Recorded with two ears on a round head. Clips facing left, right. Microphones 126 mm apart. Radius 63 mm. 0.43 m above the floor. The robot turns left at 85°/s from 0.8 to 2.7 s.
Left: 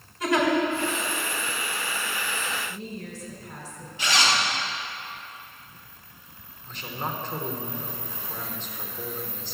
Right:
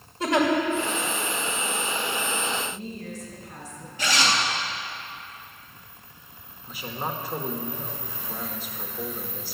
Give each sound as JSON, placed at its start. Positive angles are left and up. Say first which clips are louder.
{"t": 0.2, "sound": "a giggle", "louder": "right 1 dB", "side_deg": -25, "distance_m": 2.0}
{"t": 2.7, "sound": "a woman speaking", "louder": "right 1 dB", "side_deg": 60, "distance_m": 3.0}
{"t": 4.0, "sound": "a zipper", "louder": "even", "side_deg": -40, "distance_m": 2.5}
{"t": 6.7, "sound": "a man speaking", "louder": "right 1 dB", "side_deg": -10, "distance_m": 1.0}